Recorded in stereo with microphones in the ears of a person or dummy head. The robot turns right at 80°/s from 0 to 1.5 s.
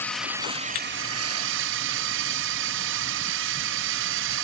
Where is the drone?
165° left; by 4.4 s 75° right.